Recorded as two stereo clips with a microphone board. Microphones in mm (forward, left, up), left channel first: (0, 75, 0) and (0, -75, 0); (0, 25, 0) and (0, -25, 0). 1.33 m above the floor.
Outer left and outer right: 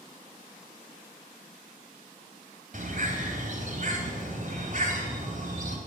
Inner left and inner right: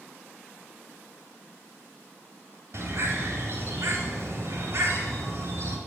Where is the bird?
65° right (ahead or behind), 3.5 m.